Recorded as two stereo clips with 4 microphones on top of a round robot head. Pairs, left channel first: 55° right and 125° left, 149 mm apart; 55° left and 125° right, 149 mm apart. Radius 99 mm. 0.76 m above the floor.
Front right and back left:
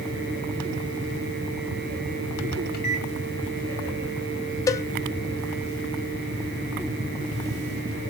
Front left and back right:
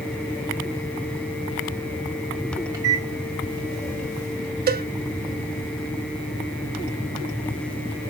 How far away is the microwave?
About 3 m.